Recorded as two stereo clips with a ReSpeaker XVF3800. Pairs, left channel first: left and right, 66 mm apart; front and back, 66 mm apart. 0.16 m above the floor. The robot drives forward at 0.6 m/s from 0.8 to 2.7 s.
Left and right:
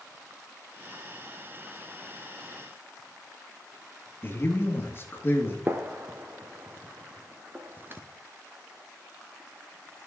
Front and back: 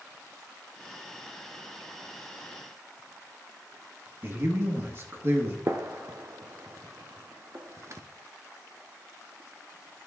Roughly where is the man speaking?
Behind left.